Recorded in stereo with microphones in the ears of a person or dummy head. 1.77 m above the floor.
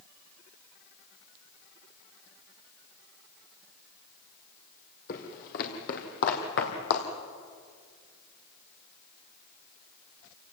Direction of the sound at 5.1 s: 50° left (ahead or behind).